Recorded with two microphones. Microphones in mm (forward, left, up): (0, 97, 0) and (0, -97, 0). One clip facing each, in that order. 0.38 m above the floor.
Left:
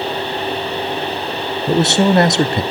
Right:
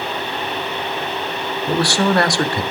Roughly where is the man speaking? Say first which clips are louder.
Left 4 dB; left.